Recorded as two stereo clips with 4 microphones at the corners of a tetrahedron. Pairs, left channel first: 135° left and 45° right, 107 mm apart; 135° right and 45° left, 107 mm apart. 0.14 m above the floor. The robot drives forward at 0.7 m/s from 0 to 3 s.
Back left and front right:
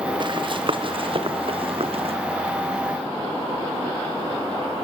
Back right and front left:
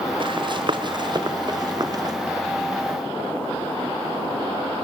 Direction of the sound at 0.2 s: Straight ahead.